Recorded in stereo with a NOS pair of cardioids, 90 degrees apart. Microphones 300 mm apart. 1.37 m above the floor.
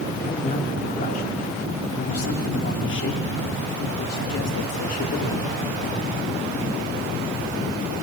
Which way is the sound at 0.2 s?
20° left.